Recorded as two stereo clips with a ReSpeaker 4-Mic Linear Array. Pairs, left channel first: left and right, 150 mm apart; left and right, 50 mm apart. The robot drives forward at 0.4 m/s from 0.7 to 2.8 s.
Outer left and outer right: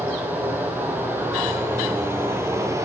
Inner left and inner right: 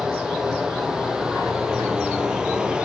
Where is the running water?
10° right (ahead or behind), 2 m; by 2.9 s 20° right (ahead or behind), 1.2 m.